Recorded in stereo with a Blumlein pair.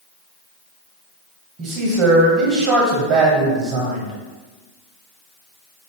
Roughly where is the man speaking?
Ahead right.